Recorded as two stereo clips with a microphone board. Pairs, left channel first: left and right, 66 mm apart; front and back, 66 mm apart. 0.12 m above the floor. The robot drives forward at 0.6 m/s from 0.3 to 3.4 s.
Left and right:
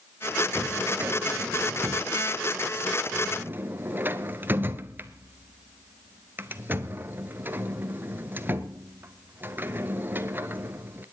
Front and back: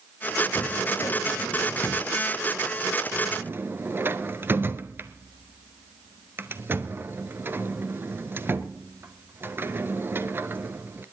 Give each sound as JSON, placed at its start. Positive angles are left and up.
{"t": 0.6, "sound": "a drawer", "azimuth_deg": -25, "distance_m": 1.4}